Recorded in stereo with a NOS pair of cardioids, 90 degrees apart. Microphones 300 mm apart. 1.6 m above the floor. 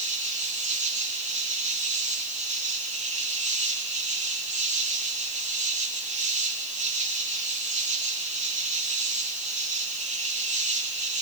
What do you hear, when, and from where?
0.0 s an insect: 25° right, 5.5 m